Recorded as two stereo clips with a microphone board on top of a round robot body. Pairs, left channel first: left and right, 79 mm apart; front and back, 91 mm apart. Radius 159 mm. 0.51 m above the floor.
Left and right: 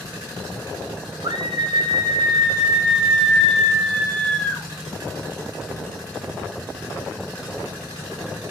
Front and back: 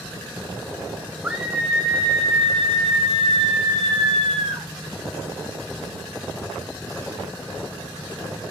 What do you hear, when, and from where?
1.2 s a scream: 110° right, 1.8 m; by 4.7 s 155° left, 3 m